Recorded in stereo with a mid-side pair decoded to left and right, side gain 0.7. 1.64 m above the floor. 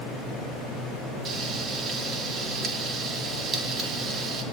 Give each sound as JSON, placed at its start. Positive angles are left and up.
{"t": 1.2, "sound": "frying", "azimuth_deg": -40, "distance_m": 4.0}